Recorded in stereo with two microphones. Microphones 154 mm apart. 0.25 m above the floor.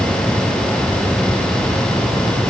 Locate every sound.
Only background noise.